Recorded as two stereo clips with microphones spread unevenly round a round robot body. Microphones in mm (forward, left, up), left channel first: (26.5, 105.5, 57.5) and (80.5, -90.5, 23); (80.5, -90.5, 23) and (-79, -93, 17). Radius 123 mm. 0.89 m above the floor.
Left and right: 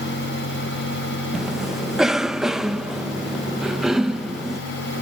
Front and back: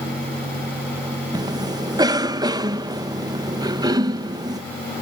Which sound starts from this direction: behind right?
A cough, at 1.3 s.